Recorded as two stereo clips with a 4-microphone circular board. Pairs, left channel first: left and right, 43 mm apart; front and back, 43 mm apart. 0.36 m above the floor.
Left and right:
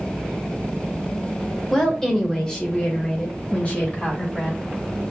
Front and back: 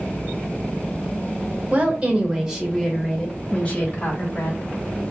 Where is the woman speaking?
170° left, 1.0 m; by 4.6 s 40° left, 1.5 m.